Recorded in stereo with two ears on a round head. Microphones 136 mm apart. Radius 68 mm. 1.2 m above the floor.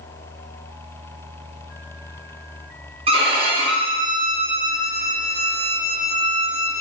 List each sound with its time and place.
3.1 s a violin: 35° right (ahead or behind), 0.6 m